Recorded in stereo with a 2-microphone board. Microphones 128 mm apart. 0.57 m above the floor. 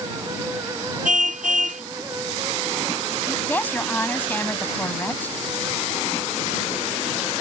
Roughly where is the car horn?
Right.